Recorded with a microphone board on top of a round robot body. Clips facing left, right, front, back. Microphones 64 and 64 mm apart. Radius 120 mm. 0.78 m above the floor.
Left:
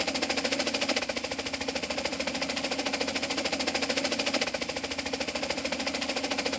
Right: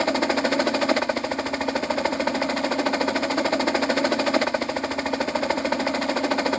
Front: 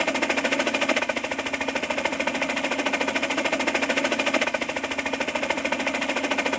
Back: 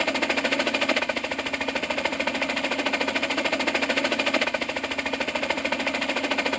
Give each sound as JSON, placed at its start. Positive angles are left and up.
{"t": 0.0, "sound": "a helicopter", "azimuth_deg": -85}